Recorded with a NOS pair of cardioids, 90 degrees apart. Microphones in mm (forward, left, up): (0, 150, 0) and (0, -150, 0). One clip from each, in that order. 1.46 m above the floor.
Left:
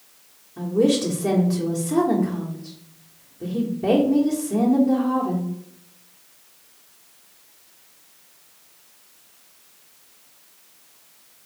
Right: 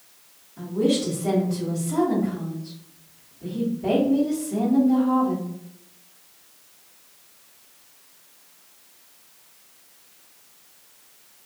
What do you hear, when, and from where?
0.6 s a woman speaking: 65° left, 1.5 m